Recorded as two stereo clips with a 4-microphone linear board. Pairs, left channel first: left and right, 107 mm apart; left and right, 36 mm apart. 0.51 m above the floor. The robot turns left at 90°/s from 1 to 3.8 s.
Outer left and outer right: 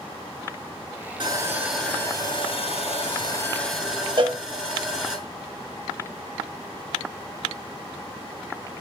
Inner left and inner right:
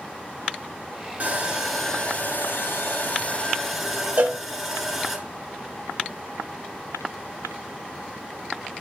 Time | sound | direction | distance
1.2 | sawing | 135° right | 1.3 m
4.2 | a cowbell | 50° right (ahead or behind) | 0.7 m